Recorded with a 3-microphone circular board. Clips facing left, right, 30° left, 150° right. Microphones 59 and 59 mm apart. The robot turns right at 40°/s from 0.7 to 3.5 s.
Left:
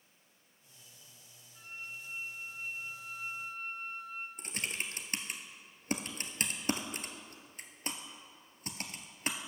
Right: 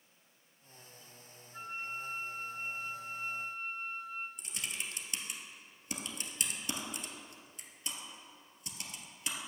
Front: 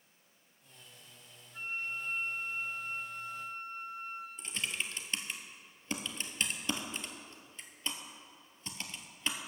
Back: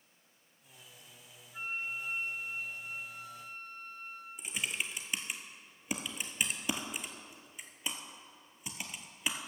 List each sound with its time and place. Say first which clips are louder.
1.5 s a flute: right 5 dB, even; 80° right, 1.1 m; by 4.3 s straight ahead, 1.1 m
4.4 s typing on a keyboard: left 4 dB, back 2 dB; 130° left, 1.0 m